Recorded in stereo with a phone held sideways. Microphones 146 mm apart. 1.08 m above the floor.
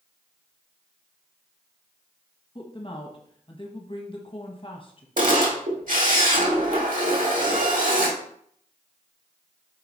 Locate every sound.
2.5 s a woman speaking: 40° left (ahead or behind), 1.4 m
5.2 s a camera shutter: 70° right (ahead or behind), 1.7 m